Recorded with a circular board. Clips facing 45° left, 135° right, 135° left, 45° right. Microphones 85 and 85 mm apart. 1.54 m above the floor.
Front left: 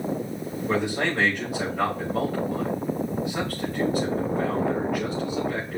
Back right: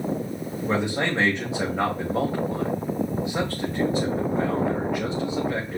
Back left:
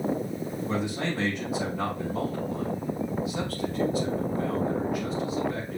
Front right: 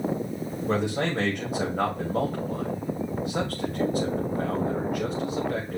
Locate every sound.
0.7 s a man speaking: 70° right, 2.5 m